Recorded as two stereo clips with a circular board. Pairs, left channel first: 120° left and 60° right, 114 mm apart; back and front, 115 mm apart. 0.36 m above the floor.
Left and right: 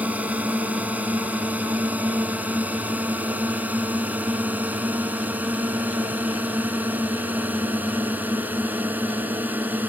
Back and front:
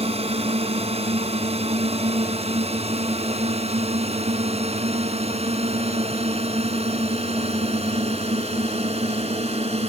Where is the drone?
15° left.